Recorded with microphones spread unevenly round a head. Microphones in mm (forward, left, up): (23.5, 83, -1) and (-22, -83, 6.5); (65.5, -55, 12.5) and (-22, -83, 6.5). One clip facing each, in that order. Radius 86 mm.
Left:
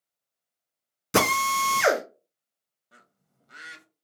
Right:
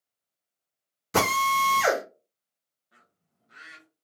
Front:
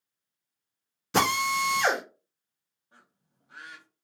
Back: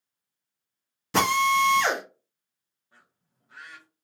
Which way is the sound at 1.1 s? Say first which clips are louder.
Left 1 dB, back 4 dB; 130° left.